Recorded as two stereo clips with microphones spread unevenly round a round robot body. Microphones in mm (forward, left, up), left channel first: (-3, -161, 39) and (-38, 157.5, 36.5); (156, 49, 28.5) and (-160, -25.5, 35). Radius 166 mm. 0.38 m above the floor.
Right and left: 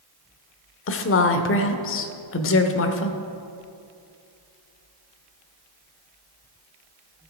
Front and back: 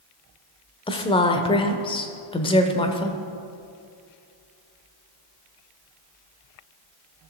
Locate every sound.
0.9 s a woman speaking: 55° right, 1.0 m